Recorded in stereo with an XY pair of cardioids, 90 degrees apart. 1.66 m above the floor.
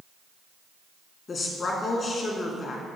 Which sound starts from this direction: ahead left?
A woman speaking, at 1.3 s.